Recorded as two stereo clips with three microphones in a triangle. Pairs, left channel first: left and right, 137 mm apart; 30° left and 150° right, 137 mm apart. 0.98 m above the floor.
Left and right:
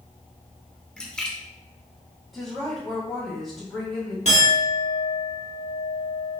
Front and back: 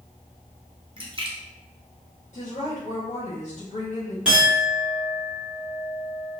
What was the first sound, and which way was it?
A splash, 170° left.